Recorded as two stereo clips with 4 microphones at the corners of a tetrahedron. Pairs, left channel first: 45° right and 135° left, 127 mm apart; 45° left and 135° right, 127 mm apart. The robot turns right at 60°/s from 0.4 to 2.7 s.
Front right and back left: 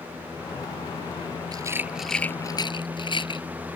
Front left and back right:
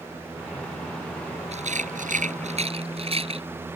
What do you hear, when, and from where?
1.5 s a rattle: 165° right; by 3.5 s 95° right